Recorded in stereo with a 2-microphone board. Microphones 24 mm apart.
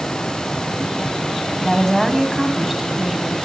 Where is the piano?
No piano in this recording.